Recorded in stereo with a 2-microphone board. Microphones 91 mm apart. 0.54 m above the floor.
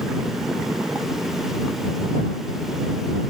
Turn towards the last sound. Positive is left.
No sound to turn to.